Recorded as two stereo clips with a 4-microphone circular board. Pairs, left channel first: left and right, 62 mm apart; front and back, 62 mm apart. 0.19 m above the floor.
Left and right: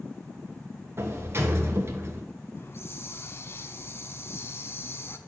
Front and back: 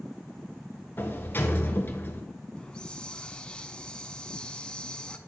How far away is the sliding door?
About 1.0 m.